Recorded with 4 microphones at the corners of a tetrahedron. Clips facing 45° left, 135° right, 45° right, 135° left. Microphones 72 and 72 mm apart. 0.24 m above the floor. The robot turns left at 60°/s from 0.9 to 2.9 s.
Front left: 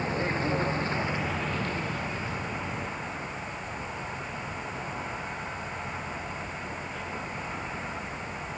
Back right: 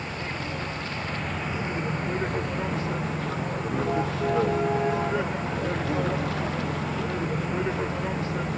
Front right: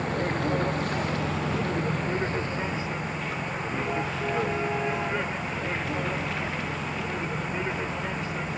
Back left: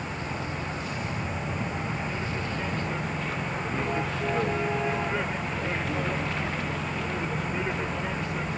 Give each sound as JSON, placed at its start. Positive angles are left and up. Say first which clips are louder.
{"t": 0.0, "sound": "a vehicle", "louder": "front left 4 dB, front right 6 dB", "azimuth_deg": -15}